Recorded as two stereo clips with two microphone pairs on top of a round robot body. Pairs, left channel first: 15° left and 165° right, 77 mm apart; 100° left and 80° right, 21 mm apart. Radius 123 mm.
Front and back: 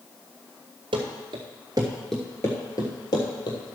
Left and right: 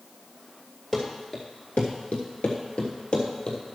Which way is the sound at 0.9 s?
165° right.